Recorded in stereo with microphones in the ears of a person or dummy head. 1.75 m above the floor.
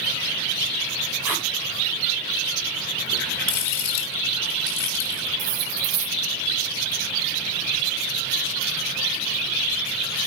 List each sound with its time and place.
1.2 s tape being pulled: 10° right (ahead or behind), 2.0 m
3.1 s a running tap: 70° left (ahead or behind), 3 m
5.4 s cutlery clinking: 85° right, 8 m